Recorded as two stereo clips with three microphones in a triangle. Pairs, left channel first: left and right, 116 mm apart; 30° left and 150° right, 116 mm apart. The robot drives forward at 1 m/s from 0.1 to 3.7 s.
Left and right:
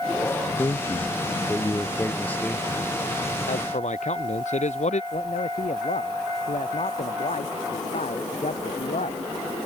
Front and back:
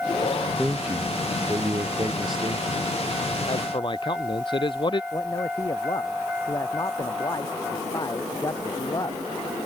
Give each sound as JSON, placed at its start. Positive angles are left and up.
{"t": 0.6, "sound": "a man speaking", "azimuth_deg": 130}
{"t": 3.5, "sound": "a man speaking", "azimuth_deg": 75}
{"t": 5.1, "sound": "a man speaking", "azimuth_deg": 85}